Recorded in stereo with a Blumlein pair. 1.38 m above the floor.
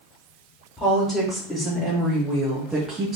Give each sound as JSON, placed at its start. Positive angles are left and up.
{"t": 0.8, "sound": "a woman speaking", "azimuth_deg": 10, "distance_m": 2.0}